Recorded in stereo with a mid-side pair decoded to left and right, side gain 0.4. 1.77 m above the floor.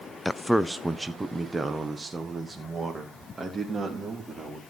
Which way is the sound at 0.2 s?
15° left.